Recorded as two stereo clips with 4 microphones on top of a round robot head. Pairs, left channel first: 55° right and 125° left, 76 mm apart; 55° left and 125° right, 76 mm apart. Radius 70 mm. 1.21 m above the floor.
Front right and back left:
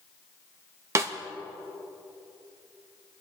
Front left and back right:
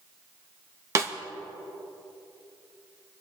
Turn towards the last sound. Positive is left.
turn(degrees=180)